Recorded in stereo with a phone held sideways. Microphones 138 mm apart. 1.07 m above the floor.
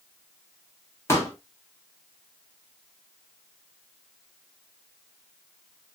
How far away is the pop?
About 1.1 m.